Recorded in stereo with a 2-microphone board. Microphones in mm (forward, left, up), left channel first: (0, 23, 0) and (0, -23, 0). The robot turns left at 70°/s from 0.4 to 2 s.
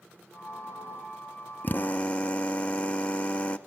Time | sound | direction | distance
1.6 | a drill | 40° left (ahead or behind) | 1.1 m